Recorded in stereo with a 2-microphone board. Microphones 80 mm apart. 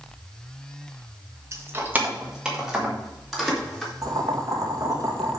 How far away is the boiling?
About 1.9 m.